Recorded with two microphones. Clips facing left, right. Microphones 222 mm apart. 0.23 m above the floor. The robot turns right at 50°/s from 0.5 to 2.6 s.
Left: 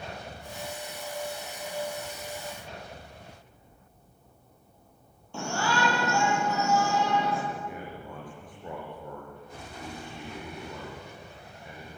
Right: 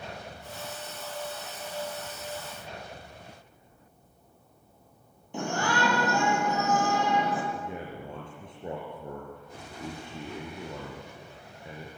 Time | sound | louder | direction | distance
5.3 | a shout | right 1 dB | 15° right (ahead or behind) | 7.5 m
7.5 | a man speaking | right 1 dB | 25° right (ahead or behind) | 4.5 m